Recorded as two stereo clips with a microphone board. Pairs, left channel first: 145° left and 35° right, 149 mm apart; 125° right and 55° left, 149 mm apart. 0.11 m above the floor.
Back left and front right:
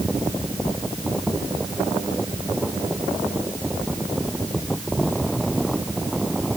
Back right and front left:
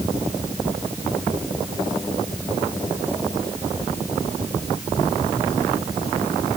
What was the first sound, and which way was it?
Only background noise.